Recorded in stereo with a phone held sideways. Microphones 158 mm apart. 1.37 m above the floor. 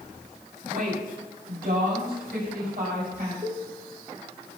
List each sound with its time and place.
0.7 s a woman speaking: 65° right (ahead or behind), 5.5 m; by 3.3 s 85° right, 6.5 m
3.4 s a cowbell: 35° right (ahead or behind), 1.6 m